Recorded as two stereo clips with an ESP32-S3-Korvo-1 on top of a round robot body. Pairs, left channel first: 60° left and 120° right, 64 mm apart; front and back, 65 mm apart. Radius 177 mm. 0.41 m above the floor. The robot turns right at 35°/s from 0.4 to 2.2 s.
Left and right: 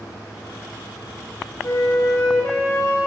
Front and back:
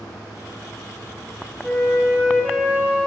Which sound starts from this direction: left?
A flute, at 1.6 s.